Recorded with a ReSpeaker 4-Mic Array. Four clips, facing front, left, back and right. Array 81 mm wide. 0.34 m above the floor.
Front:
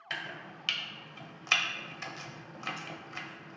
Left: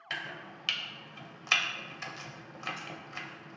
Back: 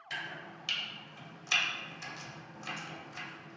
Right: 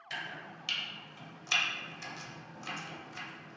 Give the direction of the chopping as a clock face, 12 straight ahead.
11 o'clock.